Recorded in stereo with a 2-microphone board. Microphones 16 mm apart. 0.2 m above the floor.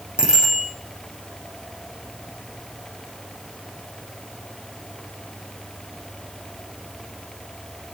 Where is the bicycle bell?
70° right (ahead or behind), 6.5 m.